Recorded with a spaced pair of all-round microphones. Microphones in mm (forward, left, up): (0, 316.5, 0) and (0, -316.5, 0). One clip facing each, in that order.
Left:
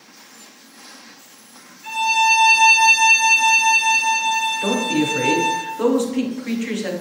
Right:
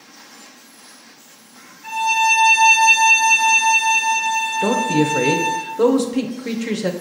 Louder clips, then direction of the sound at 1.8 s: Even; 15° right (ahead or behind).